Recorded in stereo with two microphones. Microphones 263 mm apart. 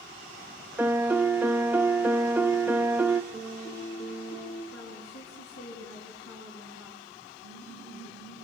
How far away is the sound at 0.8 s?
About 0.6 m.